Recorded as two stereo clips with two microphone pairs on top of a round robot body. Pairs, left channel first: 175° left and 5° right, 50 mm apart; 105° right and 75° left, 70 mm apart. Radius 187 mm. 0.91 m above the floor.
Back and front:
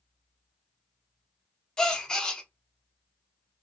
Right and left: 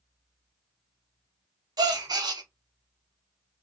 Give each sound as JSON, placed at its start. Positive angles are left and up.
{"t": 1.8, "sound": "a gasp", "azimuth_deg": 100, "distance_m": 0.6}